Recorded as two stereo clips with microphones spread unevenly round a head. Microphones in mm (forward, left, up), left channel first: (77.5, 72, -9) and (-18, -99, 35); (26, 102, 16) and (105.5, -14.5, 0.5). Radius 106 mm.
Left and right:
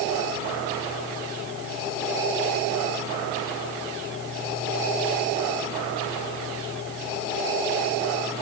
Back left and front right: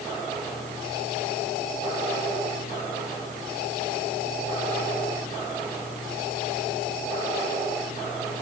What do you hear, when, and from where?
Only background noise.